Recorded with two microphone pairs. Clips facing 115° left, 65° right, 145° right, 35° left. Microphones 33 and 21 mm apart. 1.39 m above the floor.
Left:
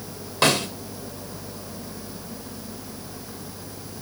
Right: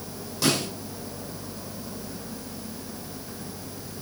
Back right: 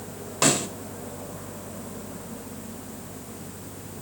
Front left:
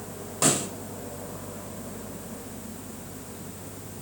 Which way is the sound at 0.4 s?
160° left.